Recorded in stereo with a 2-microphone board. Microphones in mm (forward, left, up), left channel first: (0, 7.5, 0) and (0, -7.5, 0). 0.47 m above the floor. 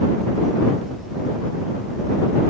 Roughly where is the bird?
No bird in this recording.